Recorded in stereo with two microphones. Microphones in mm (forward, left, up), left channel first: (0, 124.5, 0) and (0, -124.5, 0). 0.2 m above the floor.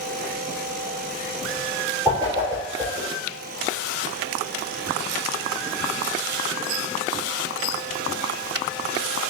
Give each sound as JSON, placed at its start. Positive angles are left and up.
{"t": 2.0, "sound": "a whoosh", "side_deg": -10, "distance_m": 3.0}